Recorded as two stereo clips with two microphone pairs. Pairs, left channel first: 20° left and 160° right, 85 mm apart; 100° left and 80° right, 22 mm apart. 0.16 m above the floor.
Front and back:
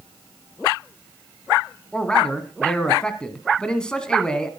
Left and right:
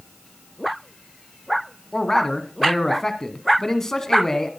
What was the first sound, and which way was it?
A man speaking, 80° left.